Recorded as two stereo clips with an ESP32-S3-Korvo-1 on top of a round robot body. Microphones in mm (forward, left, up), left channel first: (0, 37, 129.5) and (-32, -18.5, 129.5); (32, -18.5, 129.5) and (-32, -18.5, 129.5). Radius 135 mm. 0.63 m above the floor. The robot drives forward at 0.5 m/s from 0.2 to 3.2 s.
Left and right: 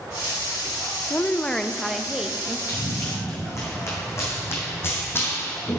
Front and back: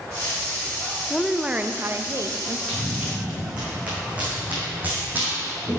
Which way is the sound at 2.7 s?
100° left.